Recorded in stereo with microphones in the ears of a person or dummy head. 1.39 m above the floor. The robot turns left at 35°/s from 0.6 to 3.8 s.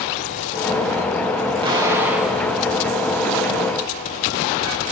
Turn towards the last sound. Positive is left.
turn(degrees=130)